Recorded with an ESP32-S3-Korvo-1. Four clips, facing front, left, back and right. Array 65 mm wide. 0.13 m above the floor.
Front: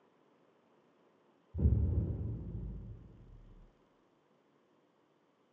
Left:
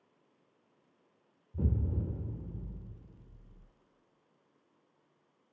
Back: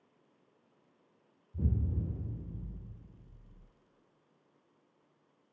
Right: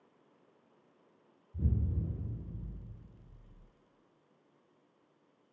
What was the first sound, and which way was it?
An explosion, 70° left.